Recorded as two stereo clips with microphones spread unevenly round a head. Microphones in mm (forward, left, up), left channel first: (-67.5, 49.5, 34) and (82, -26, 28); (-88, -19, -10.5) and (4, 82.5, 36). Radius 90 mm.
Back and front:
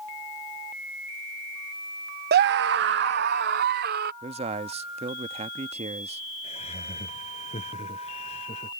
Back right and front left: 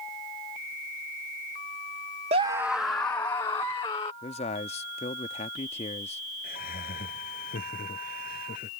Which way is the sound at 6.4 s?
150° right.